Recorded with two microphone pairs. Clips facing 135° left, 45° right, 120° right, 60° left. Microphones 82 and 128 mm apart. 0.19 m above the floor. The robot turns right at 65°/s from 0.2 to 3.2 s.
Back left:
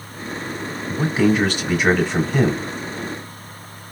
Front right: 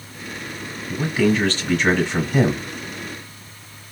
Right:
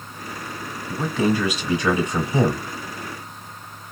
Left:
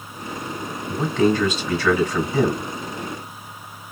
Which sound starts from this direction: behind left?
A man speaking, at 0.9 s.